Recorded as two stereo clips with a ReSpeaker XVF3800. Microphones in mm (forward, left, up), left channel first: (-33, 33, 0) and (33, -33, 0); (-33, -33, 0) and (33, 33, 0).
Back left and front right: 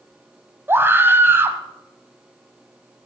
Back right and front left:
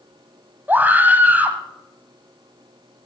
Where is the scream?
5° right, 1.2 m.